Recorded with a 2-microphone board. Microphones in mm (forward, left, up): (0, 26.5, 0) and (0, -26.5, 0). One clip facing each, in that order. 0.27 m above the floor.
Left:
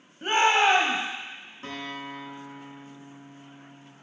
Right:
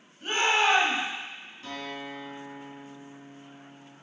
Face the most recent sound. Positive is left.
turn(degrees=45)  # may be behind; listen again after turning